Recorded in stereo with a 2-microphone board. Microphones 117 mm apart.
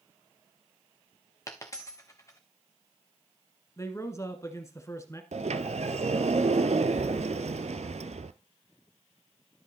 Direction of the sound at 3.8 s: 25° left (ahead or behind).